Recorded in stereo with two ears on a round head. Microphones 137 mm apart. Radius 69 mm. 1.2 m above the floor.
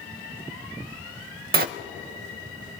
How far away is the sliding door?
About 0.6 m.